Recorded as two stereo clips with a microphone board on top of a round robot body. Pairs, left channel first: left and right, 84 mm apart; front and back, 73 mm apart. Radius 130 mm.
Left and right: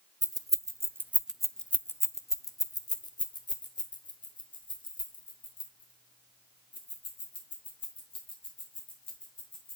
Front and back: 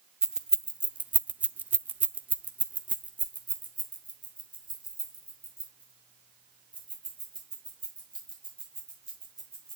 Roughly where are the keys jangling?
Right.